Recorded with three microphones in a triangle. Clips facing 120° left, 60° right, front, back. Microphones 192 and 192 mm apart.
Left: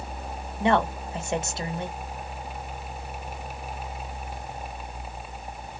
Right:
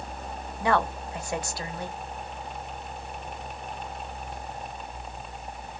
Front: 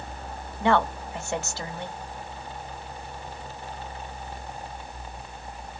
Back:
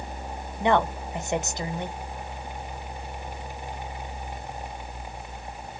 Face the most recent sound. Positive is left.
turn(degrees=135)